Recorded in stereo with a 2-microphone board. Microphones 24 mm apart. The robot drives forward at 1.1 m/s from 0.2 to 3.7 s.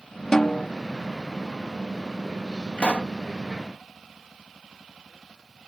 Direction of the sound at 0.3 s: 30° left (ahead or behind).